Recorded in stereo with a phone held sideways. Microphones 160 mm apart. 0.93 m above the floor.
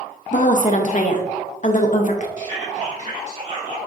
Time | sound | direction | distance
0.3 | a woman speaking | 50° left (ahead or behind) | 0.7 m
2.4 | whispering | 50° right (ahead or behind) | 1.9 m